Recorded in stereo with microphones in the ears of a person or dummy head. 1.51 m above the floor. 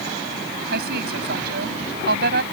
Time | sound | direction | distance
0.7 | a woman speaking | 60° right (ahead or behind) | ?